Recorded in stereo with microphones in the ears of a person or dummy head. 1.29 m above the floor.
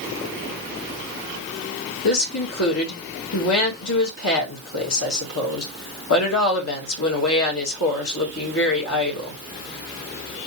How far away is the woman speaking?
About 2 m.